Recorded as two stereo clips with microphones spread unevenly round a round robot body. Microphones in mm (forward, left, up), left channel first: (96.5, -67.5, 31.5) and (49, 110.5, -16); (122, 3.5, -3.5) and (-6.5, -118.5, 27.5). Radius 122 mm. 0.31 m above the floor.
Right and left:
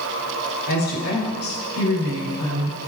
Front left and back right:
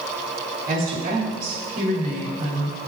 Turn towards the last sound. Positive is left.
turn(degrees=-95)